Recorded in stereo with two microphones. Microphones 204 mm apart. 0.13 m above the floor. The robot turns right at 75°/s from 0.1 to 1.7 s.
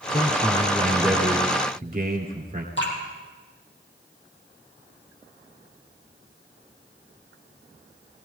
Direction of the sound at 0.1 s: 115° left.